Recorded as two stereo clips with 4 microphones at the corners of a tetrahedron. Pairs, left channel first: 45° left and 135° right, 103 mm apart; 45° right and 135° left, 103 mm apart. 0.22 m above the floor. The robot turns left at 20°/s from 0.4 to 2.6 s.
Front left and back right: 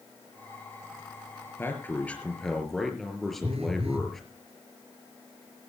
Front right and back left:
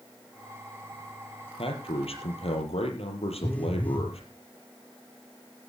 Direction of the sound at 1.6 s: 20° right.